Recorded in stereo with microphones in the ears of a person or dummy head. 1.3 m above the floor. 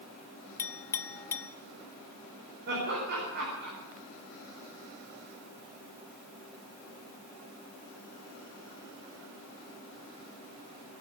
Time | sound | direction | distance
0.6 | a clink | 15° left (ahead or behind) | 0.8 m
2.7 | laughter | 50° right (ahead or behind) | 4.5 m